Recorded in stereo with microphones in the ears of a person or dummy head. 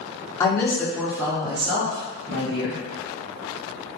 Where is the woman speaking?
25° left (ahead or behind), 0.8 m; by 2.8 s 60° right (ahead or behind), 1.0 m.